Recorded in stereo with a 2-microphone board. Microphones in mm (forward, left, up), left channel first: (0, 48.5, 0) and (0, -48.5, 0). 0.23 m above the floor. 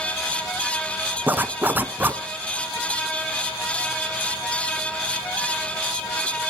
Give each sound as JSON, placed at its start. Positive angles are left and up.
{"t": 1.3, "sound": "a zipper", "side_deg": -20, "distance_m": 0.5}